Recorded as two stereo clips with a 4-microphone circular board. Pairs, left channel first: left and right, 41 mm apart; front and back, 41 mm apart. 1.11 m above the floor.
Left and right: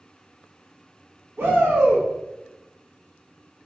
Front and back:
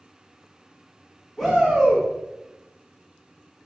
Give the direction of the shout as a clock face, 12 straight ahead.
3 o'clock.